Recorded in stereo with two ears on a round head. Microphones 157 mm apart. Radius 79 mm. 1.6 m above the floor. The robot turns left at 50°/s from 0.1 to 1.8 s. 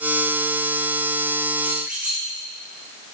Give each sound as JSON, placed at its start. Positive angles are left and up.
{"t": 1.6, "sound": "a squeak", "side_deg": -15, "distance_m": 5.5}